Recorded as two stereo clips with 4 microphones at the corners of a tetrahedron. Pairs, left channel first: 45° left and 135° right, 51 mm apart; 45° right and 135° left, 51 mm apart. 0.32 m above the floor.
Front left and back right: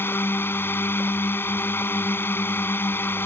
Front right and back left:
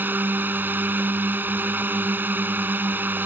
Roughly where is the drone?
Left.